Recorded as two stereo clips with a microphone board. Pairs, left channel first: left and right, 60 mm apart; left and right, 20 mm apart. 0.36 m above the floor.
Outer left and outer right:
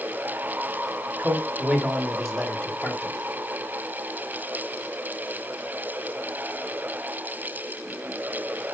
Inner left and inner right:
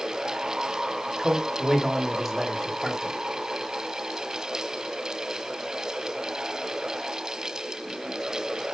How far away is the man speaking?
About 1.8 m.